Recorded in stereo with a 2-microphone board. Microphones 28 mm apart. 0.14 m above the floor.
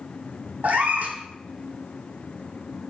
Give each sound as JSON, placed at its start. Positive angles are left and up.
{"t": 0.6, "sound": "a cat meowing", "side_deg": -70, "distance_m": 0.6}